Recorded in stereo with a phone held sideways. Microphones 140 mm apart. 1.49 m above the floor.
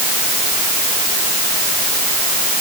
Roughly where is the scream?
I don't hear a scream.